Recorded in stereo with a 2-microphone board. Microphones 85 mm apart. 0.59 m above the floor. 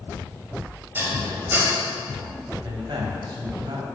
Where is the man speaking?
65° right (ahead or behind), 3 m.